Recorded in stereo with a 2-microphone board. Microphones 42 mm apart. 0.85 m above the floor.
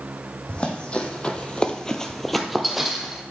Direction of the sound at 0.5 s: 25° left (ahead or behind).